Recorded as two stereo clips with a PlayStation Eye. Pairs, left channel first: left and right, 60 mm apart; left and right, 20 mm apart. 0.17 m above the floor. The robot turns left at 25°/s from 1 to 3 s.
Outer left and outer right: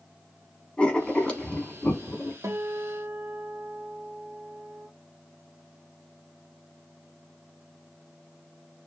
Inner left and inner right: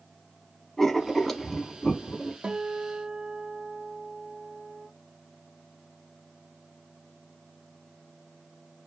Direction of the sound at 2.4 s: 55° right (ahead or behind).